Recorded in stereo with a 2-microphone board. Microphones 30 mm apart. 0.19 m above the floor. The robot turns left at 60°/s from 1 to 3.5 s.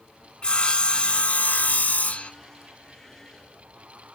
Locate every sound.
0.4 s sawing: 135° left, 0.6 m; by 2.3 s 55° left, 0.6 m